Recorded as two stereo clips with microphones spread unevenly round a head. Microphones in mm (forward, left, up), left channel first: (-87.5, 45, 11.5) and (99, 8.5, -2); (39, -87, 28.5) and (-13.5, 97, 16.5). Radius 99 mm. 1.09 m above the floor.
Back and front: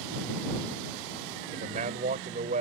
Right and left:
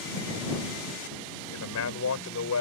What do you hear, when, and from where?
1.5 s a man speaking: 70° right